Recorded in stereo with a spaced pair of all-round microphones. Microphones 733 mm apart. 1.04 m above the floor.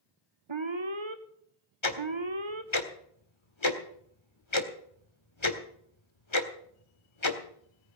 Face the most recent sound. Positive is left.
turn(degrees=40)  # may be behind; listen again after turning